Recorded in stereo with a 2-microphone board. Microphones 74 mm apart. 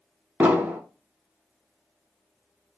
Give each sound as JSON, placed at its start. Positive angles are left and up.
{"t": 0.4, "sound": "an explosion", "side_deg": -20, "distance_m": 0.5}